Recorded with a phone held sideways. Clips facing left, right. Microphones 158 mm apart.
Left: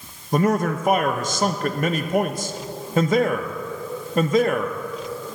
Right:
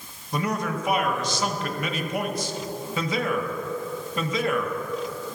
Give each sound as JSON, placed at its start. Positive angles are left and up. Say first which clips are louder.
{"t": 0.3, "sound": "a man speaking", "louder": "left 7 dB", "side_deg": 50, "distance_m": 0.5}